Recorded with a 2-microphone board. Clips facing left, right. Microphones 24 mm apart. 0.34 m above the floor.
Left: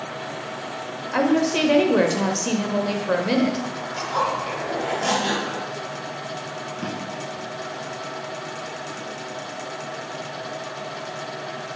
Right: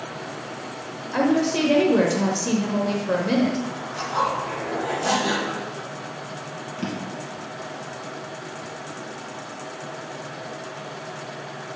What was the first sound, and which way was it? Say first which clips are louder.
A woman speaking: left 1 dB; 20° left (ahead or behind).